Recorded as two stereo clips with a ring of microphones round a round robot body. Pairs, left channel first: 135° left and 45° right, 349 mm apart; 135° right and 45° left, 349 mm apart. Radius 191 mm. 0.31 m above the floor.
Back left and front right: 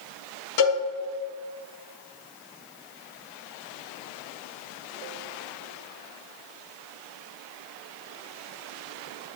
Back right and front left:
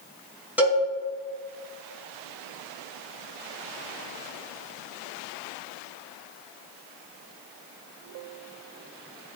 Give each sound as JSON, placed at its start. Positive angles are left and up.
{"t": 0.6, "sound": "a cowbell", "azimuth_deg": 130, "distance_m": 3.0}